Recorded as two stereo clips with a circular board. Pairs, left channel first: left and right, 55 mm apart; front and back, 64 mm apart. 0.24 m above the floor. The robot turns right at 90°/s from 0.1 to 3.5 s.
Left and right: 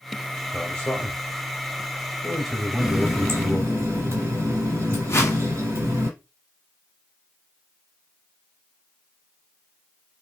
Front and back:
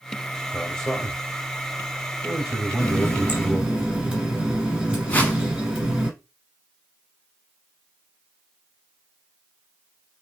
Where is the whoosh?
65° left, 0.9 m.